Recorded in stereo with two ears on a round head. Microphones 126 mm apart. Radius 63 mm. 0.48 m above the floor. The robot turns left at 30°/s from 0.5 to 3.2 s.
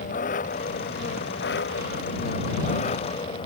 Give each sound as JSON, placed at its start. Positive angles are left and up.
{"t": 0.0, "sound": "an engine running", "azimuth_deg": 120}